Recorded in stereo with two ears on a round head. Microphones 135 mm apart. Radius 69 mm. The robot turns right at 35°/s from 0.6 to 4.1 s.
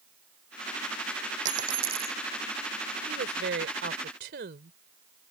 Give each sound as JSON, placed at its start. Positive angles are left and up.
{"t": 1.4, "sound": "a dropped coin", "side_deg": -50}
{"t": 3.1, "sound": "a woman speaking", "azimuth_deg": -105}